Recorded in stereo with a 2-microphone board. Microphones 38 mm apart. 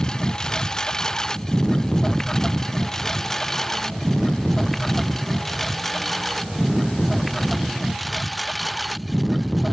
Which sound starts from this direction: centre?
A lawn mower, at 0.0 s.